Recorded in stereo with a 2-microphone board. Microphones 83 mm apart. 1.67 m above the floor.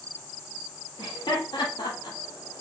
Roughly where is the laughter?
Left.